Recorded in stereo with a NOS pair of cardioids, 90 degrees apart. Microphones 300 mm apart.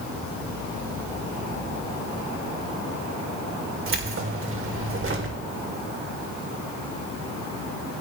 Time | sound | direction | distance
3.9 | keys jangling | 40° right | 3.5 m